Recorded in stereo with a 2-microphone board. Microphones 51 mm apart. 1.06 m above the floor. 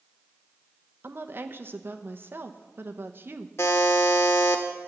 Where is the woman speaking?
40° right (ahead or behind), 0.8 m.